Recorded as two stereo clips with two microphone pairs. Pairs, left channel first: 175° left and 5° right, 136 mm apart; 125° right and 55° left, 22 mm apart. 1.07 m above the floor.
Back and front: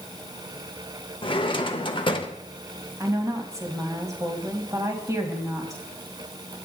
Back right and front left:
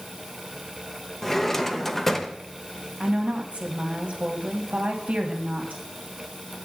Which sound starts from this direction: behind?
A drawer, at 1.2 s.